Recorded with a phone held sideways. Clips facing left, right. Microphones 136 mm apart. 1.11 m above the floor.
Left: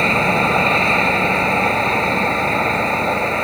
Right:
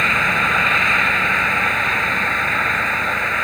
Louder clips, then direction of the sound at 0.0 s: Left 5 dB; 35° left (ahead or behind).